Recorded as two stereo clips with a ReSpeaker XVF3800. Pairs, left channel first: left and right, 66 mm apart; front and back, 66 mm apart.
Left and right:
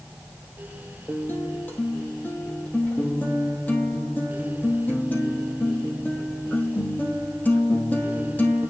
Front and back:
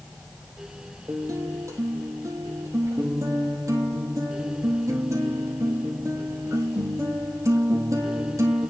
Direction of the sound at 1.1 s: 150° left.